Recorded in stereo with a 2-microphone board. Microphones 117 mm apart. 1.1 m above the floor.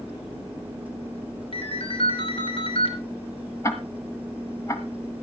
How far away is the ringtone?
About 3 m.